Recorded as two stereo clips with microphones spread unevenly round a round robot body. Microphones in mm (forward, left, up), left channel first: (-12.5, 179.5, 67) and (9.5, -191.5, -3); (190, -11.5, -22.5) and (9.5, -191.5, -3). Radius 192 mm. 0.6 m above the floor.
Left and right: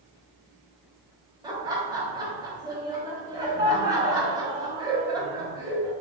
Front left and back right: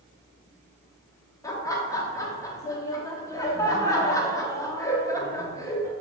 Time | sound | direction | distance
1.4 | laughter | 25° right | 0.8 m